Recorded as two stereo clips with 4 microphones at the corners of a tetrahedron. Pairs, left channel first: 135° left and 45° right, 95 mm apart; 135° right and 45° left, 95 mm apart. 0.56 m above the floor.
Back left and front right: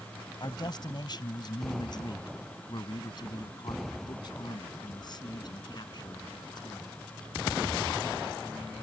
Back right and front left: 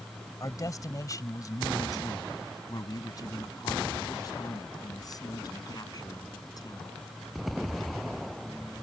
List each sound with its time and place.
0.4 s a man speaking: 175° left